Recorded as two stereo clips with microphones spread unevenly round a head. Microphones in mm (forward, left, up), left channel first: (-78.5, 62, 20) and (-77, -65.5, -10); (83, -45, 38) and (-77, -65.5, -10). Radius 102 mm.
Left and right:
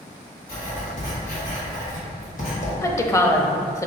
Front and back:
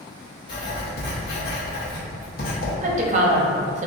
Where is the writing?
50° left, 1.0 m.